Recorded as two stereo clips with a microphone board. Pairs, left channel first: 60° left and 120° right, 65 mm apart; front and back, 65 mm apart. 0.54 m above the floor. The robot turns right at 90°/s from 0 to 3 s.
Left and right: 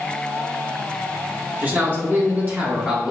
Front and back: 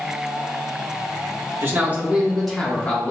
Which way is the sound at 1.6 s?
165° right.